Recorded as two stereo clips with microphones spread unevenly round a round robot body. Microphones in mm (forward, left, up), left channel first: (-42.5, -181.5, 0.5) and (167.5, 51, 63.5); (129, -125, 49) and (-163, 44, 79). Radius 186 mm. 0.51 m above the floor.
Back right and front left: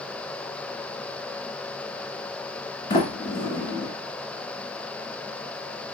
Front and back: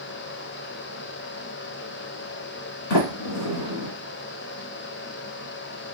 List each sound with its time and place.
2.9 s a sliding door: 55° right, 1.1 m